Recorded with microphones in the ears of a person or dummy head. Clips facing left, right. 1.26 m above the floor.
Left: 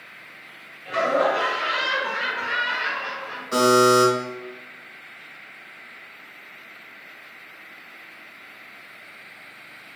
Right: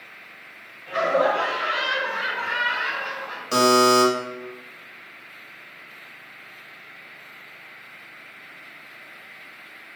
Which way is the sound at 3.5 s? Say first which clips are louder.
Left 1 dB; 45° right (ahead or behind).